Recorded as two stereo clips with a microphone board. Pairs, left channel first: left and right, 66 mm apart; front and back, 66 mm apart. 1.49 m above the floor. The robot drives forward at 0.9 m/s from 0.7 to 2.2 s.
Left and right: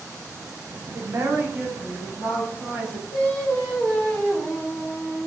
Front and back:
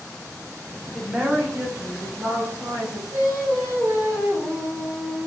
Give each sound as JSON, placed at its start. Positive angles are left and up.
{"t": 0.9, "sound": "a woman speaking", "azimuth_deg": -90, "distance_m": 0.6}
{"t": 3.1, "sound": "singing", "azimuth_deg": 165, "distance_m": 1.2}